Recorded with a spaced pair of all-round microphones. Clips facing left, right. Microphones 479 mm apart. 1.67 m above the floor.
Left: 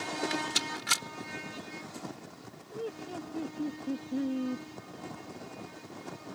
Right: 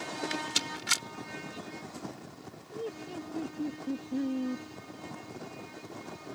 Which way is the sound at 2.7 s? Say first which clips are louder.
Even; centre (ahead or behind).